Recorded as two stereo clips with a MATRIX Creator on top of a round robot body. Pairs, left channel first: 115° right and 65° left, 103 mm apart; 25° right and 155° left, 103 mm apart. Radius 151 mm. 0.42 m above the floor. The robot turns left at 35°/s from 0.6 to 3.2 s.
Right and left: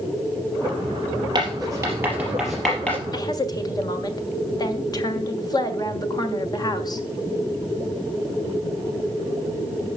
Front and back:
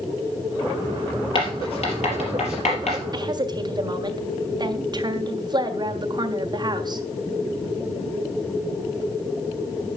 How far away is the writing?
About 4 m.